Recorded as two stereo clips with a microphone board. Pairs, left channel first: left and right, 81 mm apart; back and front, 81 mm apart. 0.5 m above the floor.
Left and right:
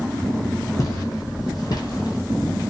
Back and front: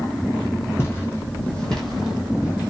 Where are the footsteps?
125° left, 1.1 m; by 2.7 s 55° left, 0.8 m.